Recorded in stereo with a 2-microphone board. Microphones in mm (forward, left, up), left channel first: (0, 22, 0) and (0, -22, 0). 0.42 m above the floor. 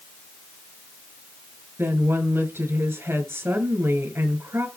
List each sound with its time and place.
1.8 s a woman speaking: 65° right (ahead or behind), 6.5 m